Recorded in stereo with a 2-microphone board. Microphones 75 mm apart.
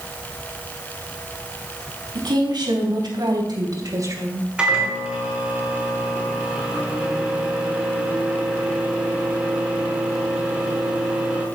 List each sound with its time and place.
2.1 s a woman speaking: 75° right (ahead or behind), 4.5 m; by 4.5 s 30° right (ahead or behind), 1.9 m
4.6 s a microwave: 10° right (ahead or behind), 4.5 m